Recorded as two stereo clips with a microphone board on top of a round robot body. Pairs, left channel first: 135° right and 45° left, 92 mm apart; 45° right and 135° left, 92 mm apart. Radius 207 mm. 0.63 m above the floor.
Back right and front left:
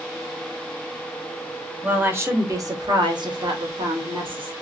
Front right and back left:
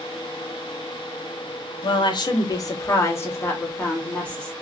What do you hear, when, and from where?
1.8 s a woman speaking: 25° right, 1.4 m; by 4.5 s 35° left, 2 m